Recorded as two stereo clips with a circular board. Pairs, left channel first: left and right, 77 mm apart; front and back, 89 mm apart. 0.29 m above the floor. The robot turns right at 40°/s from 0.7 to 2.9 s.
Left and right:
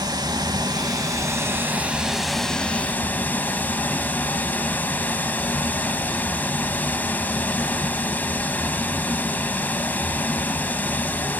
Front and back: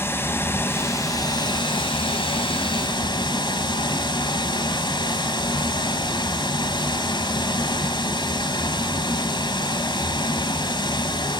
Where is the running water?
65° right, 0.9 m; by 11.4 s 25° left, 0.9 m.